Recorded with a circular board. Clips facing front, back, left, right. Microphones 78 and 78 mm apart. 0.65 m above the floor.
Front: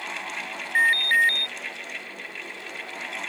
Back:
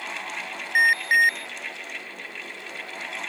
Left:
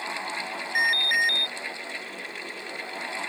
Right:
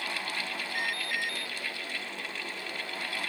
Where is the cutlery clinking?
No cutlery clinking in this recording.